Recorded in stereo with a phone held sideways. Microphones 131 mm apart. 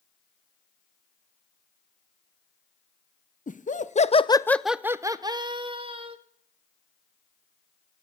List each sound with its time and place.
3.5 s laughter: 70° left (ahead or behind), 0.9 m; by 6.2 s 40° right (ahead or behind), 1.6 m